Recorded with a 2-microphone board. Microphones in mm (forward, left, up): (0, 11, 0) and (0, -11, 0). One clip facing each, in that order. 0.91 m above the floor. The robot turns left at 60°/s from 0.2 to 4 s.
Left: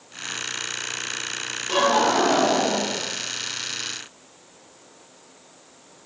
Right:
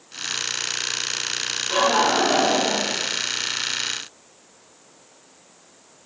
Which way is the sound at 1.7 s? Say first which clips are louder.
Even; 40° left.